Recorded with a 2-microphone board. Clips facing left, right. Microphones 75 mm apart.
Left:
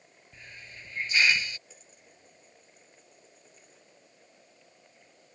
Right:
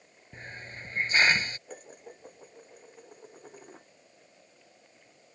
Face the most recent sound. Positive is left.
turn(degrees=-55)  # may be behind; listen again after turning